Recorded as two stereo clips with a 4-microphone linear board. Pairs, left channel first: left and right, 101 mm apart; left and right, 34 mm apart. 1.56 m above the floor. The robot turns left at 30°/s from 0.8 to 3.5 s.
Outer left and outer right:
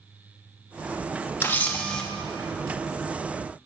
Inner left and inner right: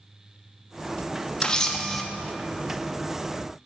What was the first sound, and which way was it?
A camera shutter, 25° left (ahead or behind).